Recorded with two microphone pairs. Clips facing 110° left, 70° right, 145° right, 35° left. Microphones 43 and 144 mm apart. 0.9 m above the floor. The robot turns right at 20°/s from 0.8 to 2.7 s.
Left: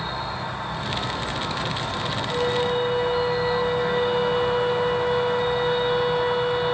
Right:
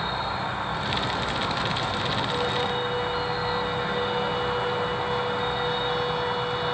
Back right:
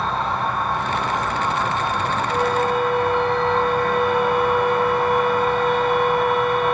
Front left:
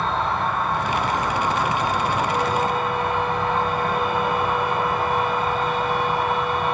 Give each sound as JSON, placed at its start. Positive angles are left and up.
{"t": 0.0, "sound": "an insect", "azimuth_deg": -50, "distance_m": 1.3}
{"t": 2.3, "sound": "a flute", "azimuth_deg": 170, "distance_m": 0.7}